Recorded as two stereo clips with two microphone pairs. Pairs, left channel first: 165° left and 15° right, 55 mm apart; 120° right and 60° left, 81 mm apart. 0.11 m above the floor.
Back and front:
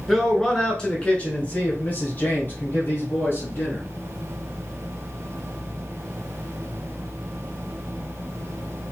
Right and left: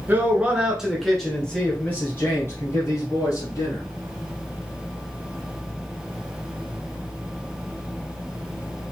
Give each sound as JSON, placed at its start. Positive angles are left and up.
{"t": 0.1, "sound": "a man speaking", "azimuth_deg": 70, "distance_m": 1.2}